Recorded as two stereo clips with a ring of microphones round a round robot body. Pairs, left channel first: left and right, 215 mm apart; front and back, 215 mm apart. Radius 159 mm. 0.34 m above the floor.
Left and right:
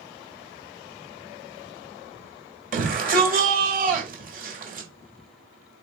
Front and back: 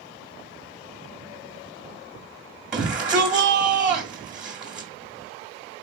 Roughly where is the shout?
Right.